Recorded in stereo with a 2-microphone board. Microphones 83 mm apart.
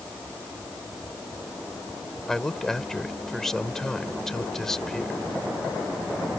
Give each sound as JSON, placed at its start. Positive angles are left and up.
{"t": 2.3, "sound": "a man speaking", "side_deg": 5}